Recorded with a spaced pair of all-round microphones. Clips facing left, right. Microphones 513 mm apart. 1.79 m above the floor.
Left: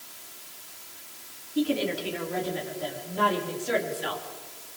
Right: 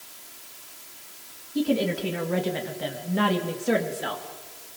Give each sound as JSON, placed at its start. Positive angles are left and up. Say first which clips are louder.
{"t": 1.6, "sound": "a woman speaking", "louder": "right 2 dB", "side_deg": -55, "distance_m": 3.5}